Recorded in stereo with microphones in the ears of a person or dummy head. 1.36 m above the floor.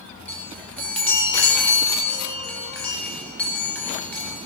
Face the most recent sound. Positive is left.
turn(degrees=10)  # may be behind; listen again after turning